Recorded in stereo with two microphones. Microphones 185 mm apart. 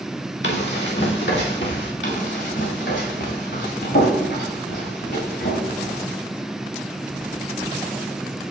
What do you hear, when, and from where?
0.4 s running footsteps: 85° left, 3.5 m
2.0 s running footsteps: 80° left, 5 m; by 5.9 s 85° left, 7.5 m